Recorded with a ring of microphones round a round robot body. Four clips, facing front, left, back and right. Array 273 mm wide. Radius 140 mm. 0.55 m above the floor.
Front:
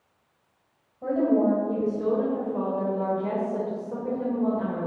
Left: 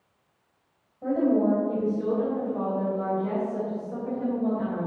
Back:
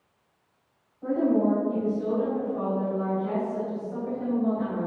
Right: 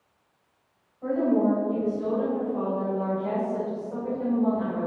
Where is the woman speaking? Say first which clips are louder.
Even, front 1 dB; 30° left, 3 m; by 4.9 s 25° right, 2.5 m.